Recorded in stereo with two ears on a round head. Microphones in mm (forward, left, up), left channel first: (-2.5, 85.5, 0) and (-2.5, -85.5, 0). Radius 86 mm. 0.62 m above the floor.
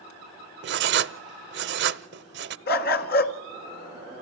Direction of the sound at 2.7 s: 55° left (ahead or behind).